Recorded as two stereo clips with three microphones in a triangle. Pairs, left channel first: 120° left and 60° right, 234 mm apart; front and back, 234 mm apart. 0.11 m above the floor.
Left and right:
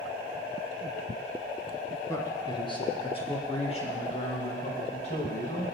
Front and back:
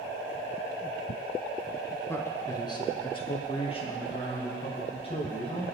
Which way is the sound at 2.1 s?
60° left.